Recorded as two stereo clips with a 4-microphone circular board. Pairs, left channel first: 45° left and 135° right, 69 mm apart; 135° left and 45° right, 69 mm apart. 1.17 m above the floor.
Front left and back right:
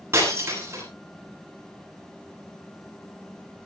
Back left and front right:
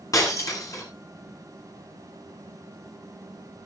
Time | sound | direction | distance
0.1 | breaking glass | 175° left | 8.5 m